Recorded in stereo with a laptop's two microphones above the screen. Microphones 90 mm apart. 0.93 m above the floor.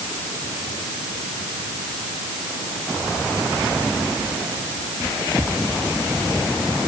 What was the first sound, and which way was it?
Only background noise.